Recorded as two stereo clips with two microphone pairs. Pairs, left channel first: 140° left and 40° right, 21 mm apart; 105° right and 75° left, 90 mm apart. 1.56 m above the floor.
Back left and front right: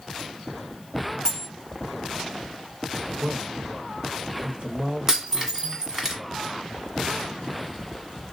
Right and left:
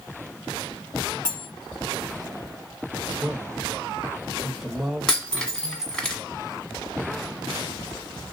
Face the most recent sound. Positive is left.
turn(degrees=-40)